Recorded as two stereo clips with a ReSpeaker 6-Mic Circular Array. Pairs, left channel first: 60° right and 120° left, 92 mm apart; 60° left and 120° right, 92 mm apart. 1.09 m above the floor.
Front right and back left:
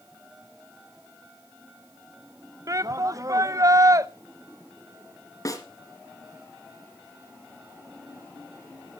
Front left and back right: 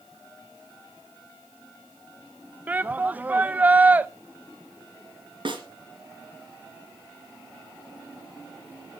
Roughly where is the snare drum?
Right.